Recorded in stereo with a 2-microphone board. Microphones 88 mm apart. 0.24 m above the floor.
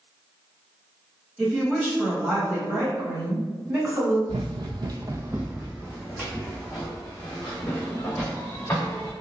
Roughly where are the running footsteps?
Right.